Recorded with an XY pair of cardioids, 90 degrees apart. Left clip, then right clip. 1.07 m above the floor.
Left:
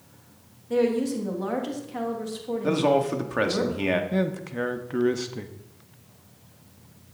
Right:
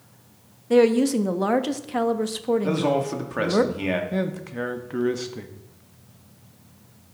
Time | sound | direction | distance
0.7 | a woman speaking | 65° right | 1.1 m
2.6 | a man speaking | 15° left | 2 m
4.1 | a man speaking | 10° left | 1.5 m